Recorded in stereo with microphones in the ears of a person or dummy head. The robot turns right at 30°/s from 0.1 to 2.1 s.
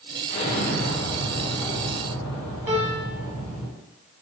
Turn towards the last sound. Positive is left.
turn(degrees=-15)  # may be behind; listen again after turning